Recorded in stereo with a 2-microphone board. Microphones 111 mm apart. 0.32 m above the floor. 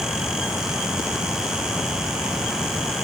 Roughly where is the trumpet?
No trumpet in this recording.